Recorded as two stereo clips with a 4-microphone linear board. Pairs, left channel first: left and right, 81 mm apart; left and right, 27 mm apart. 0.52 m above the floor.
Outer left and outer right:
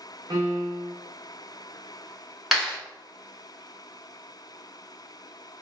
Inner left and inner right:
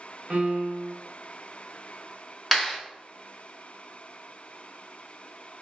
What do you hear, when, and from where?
0.3 s a piano: 55° right (ahead or behind), 0.6 m
2.5 s a clap: centre (ahead or behind), 1.1 m